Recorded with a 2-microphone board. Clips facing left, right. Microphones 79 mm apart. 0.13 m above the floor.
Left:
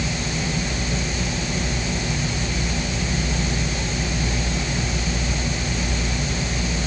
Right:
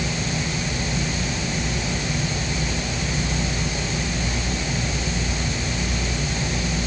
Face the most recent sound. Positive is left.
No sound to turn to.